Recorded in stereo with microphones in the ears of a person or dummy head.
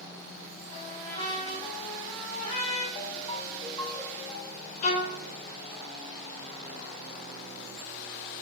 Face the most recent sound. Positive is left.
turn(degrees=40)  # may be behind; listen again after turning